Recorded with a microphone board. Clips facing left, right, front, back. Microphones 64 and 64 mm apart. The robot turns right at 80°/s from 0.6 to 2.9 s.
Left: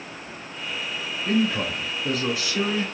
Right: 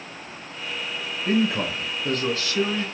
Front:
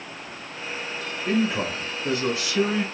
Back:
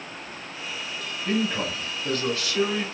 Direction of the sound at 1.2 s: 55° right.